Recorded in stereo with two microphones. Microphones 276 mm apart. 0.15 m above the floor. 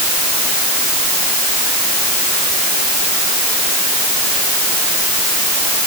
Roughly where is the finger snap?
No finger snap in this recording.